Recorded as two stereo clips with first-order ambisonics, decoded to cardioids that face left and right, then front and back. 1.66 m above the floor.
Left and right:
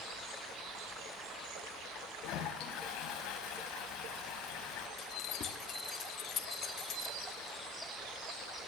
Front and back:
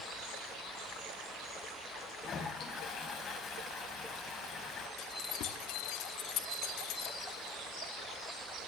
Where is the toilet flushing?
65° left, 4 m.